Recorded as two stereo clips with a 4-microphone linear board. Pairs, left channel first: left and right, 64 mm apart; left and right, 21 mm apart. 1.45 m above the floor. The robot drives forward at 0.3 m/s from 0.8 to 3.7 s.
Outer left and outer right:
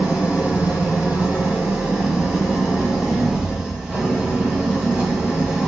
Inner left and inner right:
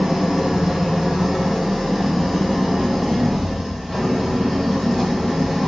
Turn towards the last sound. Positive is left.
turn(degrees=-15)  # may be behind; listen again after turning